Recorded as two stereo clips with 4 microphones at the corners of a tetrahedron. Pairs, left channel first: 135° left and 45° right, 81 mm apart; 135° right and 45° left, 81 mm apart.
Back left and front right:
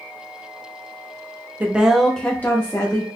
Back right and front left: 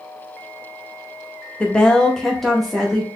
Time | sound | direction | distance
1.6 | a woman speaking | 75° right | 0.7 m